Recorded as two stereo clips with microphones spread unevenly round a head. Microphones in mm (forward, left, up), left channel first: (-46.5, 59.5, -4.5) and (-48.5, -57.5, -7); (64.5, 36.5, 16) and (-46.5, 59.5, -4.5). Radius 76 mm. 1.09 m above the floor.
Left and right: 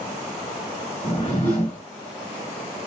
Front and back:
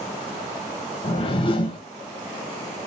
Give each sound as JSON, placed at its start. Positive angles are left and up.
{"t": 1.0, "sound": "a whoosh", "azimuth_deg": 35, "distance_m": 1.2}